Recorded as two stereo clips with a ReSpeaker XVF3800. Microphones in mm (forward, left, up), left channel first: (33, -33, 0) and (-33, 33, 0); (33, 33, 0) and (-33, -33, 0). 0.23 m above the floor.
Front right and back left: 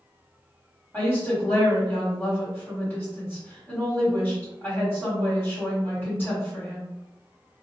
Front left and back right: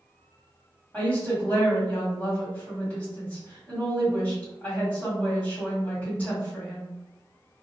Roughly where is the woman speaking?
Ahead.